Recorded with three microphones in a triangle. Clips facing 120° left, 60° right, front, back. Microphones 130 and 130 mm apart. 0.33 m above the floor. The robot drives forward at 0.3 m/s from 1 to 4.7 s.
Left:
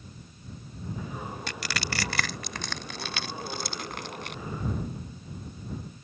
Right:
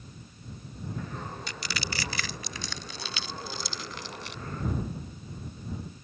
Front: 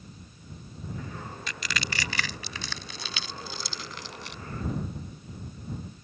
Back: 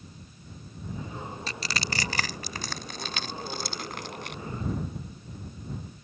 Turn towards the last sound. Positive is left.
turn(degrees=150)